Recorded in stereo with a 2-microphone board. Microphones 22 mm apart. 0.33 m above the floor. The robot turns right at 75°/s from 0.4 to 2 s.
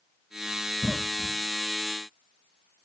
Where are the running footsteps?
No running footsteps in this recording.